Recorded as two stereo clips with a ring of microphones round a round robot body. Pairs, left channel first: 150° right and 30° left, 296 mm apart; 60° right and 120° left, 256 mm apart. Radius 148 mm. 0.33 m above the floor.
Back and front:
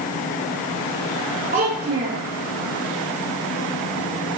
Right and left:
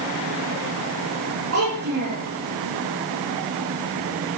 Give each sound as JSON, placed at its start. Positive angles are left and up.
{"t": 1.5, "sound": "a child speaking", "azimuth_deg": 95, "distance_m": 8.5}